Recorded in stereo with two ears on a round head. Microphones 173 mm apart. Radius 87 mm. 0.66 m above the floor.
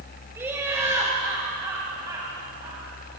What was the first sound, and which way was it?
Laughter, 10° right (ahead or behind).